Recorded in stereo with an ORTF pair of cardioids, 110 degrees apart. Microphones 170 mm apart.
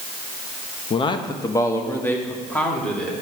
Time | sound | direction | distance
0.9 | a man speaking | 35° left | 0.9 m